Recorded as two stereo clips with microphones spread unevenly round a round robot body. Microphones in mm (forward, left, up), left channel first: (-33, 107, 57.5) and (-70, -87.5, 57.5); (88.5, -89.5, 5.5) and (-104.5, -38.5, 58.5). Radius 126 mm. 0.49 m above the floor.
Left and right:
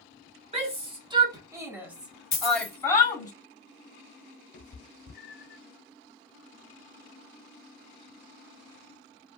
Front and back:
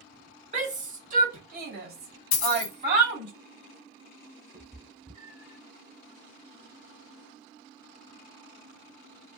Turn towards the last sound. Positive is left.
turn(degrees=85)